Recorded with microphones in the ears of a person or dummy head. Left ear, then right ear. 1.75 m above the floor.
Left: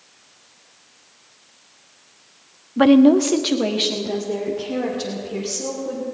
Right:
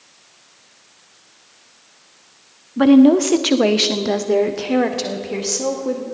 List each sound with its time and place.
2.8 s a woman speaking: 25° left (ahead or behind), 0.6 m; by 6.0 s 65° right (ahead or behind), 2 m